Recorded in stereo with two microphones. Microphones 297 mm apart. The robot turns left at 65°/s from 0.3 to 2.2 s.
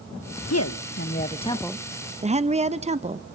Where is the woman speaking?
85° left, 1.0 m; by 3.2 s 25° right, 1.0 m.